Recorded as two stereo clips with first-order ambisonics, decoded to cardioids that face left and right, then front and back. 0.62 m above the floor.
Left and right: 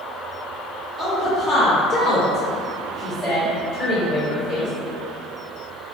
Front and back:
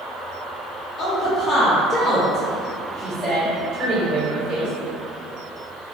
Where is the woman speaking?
5° left, 1.1 m; by 4.7 s 135° left, 1.9 m.